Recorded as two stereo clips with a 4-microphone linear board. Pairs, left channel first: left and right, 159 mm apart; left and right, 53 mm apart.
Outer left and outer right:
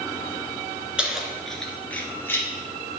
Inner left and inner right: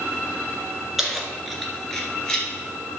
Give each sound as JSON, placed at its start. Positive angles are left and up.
{"t": 1.0, "sound": "keys jangling", "side_deg": -5, "distance_m": 1.5}